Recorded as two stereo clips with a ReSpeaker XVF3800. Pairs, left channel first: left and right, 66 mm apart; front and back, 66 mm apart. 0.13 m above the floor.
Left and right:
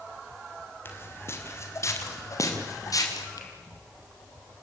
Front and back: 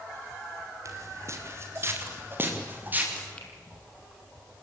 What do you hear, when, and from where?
0.8 s footsteps: 145° left, 4.5 m; by 3.3 s 120° left, 6 m
3.4 s a finger snap: 75° left, 3.5 m